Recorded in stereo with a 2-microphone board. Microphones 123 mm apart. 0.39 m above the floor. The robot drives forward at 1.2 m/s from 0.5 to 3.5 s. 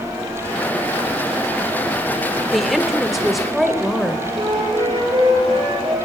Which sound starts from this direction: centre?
A woman speaking, at 2.5 s.